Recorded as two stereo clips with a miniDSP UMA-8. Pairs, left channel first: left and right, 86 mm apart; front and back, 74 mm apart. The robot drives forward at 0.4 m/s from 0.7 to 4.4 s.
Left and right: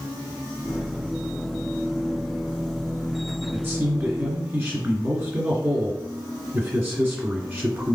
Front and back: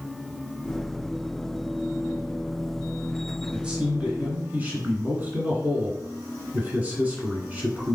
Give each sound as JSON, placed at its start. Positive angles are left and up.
{"t": 3.5, "sound": "a man speaking", "azimuth_deg": -115, "distance_m": 1.6}